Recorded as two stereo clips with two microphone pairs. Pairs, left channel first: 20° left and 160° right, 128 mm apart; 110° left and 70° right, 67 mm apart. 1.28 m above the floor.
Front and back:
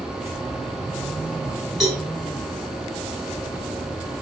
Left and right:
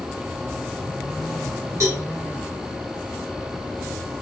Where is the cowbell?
80° right, 1.3 m.